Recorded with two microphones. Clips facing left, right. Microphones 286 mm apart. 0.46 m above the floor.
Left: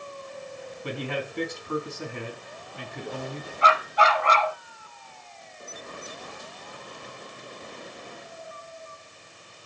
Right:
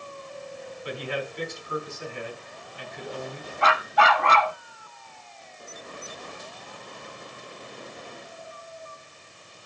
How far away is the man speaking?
About 5 m.